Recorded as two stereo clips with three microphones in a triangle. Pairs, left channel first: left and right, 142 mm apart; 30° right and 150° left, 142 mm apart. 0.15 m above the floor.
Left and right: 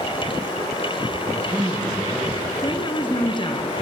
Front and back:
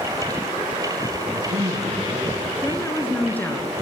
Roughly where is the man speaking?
Behind.